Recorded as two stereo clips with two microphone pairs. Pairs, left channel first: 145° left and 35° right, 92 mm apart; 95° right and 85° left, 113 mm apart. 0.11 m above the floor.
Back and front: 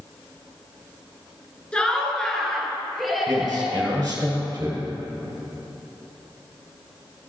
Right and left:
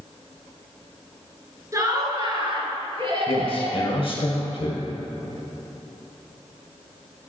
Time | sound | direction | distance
1.7 | laughter | 85° left | 1.1 m
3.3 | a man speaking | 75° right | 2 m